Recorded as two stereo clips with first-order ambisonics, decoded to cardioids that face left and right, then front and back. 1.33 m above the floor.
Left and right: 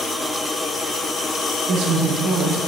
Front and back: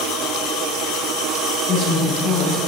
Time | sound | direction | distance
1.7 | a woman speaking | 60° right | 4 m